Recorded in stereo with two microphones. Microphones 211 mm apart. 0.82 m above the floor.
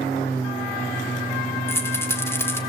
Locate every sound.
1.7 s a rattle: 10° left (ahead or behind), 2.5 m